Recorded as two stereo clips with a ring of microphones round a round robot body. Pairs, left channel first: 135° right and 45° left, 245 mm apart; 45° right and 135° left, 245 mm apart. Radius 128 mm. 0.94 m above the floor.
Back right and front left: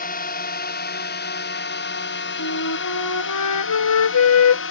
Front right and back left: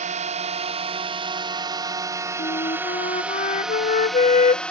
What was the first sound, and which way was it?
A drone, 175° right.